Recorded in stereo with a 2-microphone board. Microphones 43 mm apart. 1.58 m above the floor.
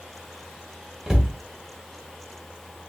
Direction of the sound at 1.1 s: 20° right (ahead or behind).